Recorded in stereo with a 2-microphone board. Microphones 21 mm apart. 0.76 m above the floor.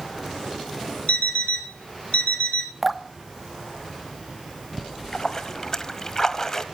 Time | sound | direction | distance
1.1 | an alarm clock | 85° left | 2 m
2.8 | dripping | 5° right (ahead or behind) | 1.0 m
4.8 | a splash | 25° left (ahead or behind) | 1.2 m